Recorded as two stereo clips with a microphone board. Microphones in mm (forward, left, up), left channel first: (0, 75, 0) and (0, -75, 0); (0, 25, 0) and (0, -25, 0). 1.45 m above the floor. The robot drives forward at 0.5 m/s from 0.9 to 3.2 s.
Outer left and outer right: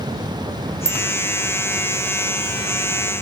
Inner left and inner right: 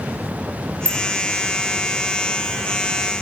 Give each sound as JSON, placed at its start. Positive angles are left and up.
{"t": 0.8, "sound": "a bicycle bell", "side_deg": 25, "distance_m": 3.5}